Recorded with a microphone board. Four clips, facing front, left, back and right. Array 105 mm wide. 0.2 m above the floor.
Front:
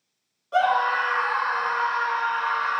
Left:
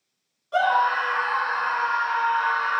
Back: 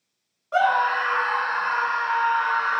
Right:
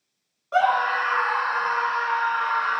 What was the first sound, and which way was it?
A scream, 130° right.